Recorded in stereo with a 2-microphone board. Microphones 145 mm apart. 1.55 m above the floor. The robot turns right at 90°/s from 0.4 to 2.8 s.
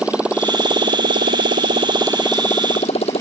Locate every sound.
0.0 s a motorcycle: 170° right; by 3.2 s 45° left